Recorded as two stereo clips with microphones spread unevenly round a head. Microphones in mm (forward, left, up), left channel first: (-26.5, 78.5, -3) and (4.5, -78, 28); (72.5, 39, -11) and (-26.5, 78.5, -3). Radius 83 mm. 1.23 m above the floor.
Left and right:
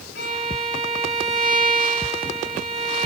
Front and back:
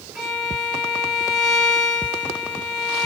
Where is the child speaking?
No child speaking in this recording.